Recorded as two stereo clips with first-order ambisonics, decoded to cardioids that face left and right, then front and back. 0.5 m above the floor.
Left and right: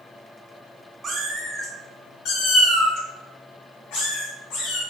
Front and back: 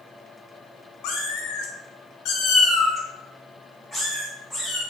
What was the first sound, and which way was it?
A cat meowing, 20° right.